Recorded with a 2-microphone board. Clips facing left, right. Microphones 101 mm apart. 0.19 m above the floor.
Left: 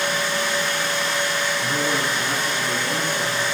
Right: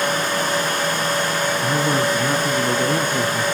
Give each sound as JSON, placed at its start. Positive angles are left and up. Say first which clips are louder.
{"t": 1.6, "sound": "a man speaking", "louder": "right 4 dB", "side_deg": -20, "distance_m": 1.2}